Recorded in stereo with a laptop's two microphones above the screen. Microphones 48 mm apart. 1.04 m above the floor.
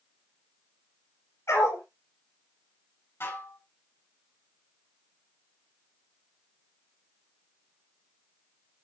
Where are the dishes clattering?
60° left (ahead or behind), 6.5 m.